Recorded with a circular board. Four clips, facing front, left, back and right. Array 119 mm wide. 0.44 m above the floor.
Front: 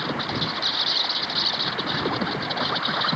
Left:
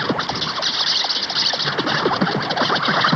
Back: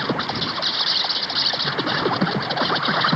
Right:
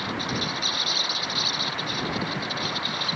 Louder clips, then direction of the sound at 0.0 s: Left 7 dB, back 3 dB; 110° left.